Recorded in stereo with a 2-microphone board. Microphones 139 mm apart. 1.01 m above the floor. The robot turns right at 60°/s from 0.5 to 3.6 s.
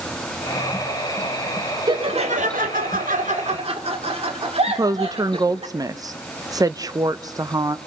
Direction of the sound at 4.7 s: 25° right (ahead or behind).